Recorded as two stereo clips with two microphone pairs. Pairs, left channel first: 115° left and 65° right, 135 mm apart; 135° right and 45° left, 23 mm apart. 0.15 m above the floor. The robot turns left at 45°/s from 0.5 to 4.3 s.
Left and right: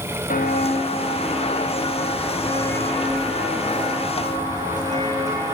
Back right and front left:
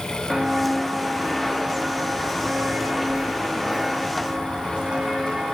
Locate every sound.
0.3 s footsteps: 115° left, 3 m; by 5.5 s straight ahead, 4 m